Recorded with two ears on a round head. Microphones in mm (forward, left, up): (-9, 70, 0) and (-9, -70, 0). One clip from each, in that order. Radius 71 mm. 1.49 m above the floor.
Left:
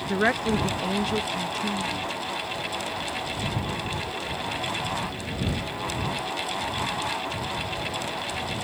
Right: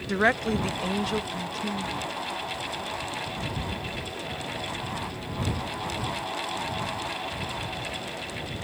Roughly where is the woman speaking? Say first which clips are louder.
Even; right.